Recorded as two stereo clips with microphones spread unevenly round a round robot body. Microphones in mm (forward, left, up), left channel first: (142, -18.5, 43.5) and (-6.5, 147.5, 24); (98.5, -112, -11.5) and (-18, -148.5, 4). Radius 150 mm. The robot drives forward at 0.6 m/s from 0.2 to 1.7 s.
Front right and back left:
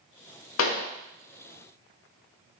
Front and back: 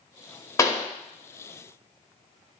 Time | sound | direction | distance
0.6 | a pop | 40° right | 1.1 m